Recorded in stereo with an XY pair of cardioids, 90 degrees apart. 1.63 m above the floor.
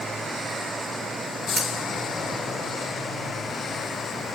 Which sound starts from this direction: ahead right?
Cutlery clinking, at 1.6 s.